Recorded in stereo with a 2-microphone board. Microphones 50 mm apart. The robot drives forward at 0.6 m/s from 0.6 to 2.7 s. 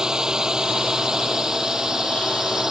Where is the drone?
15° right (ahead or behind); by 2.7 s 10° right (ahead or behind).